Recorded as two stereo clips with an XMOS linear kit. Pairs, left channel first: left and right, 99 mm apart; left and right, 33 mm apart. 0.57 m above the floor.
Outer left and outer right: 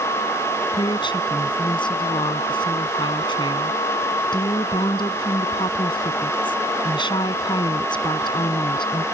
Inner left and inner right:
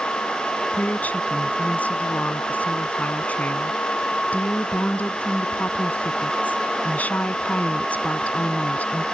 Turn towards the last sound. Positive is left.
turn(degrees=55)  # may be behind; listen again after turning